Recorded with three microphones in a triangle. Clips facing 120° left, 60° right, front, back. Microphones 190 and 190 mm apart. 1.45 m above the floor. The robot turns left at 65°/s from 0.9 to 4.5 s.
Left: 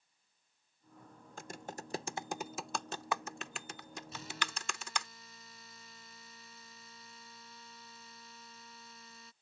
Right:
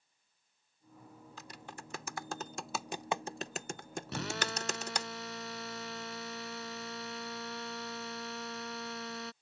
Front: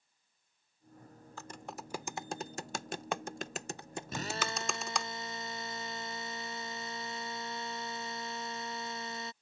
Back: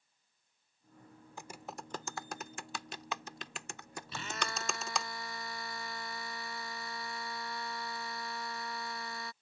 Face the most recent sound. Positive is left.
turn(degrees=-70)